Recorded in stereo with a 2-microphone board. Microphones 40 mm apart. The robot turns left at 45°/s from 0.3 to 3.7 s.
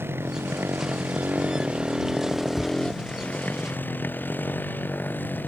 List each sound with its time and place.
0.0 s a motorcycle: 85° right; by 5.5 s 55° left (ahead or behind)
2.5 s a cupboard door: 15° left (ahead or behind); by 2.8 s 5° left (ahead or behind)